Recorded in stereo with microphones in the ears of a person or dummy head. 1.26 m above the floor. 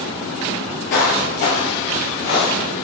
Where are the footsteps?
45° left (ahead or behind), 1.6 m; by 2.7 s 60° left (ahead or behind), 2.5 m.